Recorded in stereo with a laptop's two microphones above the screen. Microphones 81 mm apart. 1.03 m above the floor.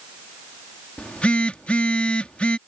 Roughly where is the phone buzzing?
Centre.